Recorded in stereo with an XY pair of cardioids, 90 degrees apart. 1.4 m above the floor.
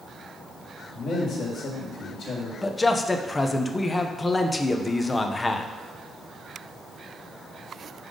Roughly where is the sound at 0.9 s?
Left.